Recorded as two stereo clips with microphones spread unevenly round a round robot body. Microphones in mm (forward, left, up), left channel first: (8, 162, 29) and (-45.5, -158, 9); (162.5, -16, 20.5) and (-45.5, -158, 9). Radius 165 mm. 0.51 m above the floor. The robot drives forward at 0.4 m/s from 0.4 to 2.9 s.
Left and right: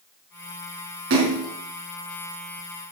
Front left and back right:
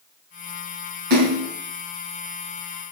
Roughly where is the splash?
Behind right.